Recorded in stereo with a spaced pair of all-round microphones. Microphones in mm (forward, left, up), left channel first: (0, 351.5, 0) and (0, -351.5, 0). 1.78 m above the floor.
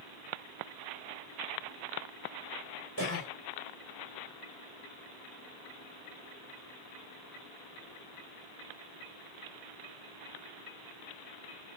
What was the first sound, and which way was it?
A cough, 20° left (ahead or behind).